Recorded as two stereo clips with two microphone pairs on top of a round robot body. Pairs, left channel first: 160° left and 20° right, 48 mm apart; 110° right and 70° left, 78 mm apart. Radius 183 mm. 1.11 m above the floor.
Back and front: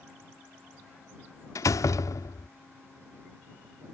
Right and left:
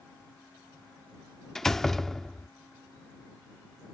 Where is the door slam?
165° left.